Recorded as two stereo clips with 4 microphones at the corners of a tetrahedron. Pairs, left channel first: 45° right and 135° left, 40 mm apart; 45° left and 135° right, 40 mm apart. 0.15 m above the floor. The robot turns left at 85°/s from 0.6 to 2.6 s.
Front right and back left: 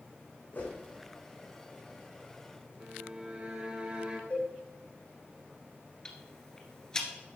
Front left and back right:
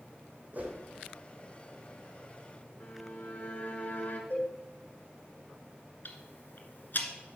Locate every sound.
0.5 s a whoosh: 90° right, 4 m; by 0.8 s 105° right, 4 m
2.8 s a violin: 75° left, 2.5 m
4.3 s a cowbell: 5° left, 6.5 m
6.0 s ticking: 25° left, 2.0 m